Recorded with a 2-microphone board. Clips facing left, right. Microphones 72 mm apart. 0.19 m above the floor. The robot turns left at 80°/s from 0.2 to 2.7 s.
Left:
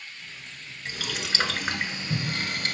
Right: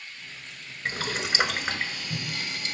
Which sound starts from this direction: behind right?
Boiling, at 0.8 s.